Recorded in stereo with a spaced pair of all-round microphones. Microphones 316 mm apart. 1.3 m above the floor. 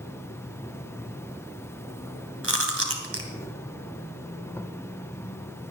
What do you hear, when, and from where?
0.0 s an insect: 10° left (ahead or behind), 0.8 m
2.4 s chewing: 45° right (ahead or behind), 2.5 m